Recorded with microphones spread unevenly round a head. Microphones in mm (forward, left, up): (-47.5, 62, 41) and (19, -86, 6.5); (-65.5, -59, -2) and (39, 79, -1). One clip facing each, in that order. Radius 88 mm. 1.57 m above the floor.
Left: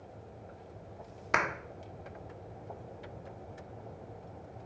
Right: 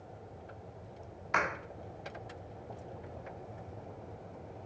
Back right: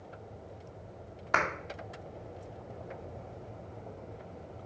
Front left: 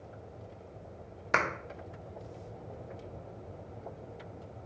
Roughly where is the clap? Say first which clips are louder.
Left 1 dB, even; left.